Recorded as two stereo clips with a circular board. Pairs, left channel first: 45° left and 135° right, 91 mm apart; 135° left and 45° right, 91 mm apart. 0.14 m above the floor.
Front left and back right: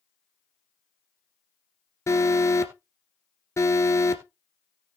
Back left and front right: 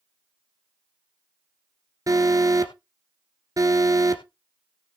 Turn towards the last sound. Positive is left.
turn(degrees=-5)